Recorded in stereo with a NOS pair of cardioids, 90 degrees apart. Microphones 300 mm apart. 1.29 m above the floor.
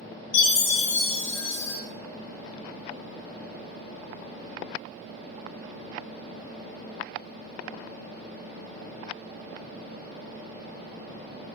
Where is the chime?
65° left, 0.9 m.